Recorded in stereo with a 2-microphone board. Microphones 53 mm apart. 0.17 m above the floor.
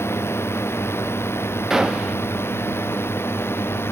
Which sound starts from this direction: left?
A drone, at 0.0 s.